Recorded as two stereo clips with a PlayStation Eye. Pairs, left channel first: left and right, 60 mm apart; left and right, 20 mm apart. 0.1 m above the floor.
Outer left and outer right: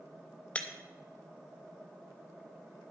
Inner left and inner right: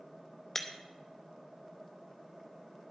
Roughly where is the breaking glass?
Left.